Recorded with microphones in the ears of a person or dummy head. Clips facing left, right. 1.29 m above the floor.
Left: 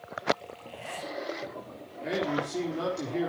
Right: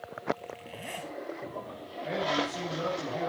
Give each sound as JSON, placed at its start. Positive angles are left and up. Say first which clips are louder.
{"t": 0.4, "sound": "a zipper", "louder": "right 1 dB", "side_deg": -20, "distance_m": 5.5}
{"t": 2.0, "sound": "a man speaking", "louder": "left 1 dB", "side_deg": 60, "distance_m": 4.0}